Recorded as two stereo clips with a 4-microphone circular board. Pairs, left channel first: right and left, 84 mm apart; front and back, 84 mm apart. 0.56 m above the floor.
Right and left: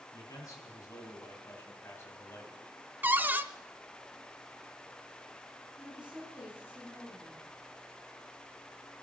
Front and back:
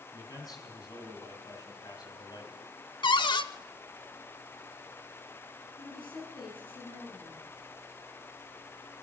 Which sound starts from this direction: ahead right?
A man speaking, at 0.1 s.